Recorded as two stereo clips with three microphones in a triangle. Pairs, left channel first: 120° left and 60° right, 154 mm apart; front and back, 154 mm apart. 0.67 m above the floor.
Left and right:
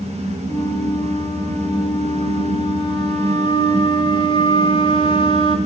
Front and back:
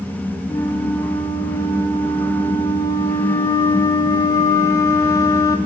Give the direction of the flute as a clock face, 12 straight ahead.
10 o'clock.